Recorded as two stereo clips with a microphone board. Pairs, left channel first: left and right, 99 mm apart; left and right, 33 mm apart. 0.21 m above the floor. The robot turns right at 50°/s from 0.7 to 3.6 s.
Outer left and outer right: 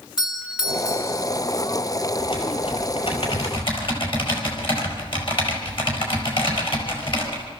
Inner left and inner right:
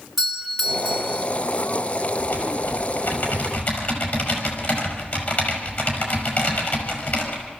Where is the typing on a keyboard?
45° left, 5.5 m; by 7.5 s 115° left, 5.5 m.